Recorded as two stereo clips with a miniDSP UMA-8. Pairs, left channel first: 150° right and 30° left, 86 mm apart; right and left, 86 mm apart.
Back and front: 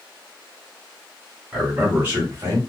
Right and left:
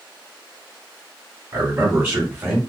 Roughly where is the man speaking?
Behind left.